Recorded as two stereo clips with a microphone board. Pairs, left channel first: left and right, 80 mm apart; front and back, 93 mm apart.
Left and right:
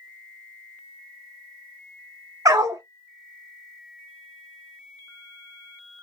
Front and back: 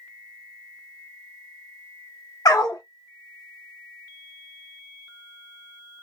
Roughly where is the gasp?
I don't hear a gasp.